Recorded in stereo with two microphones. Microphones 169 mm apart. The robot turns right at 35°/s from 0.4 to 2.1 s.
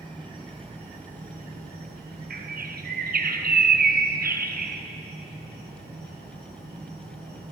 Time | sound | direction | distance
0.0 | an insect | 150° right | 2.5 m
2.3 | a bird | 70° right (ahead or behind) | 0.8 m